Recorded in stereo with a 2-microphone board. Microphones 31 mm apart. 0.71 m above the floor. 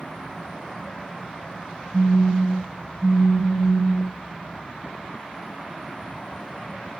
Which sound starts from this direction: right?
A phone buzzing, at 1.9 s.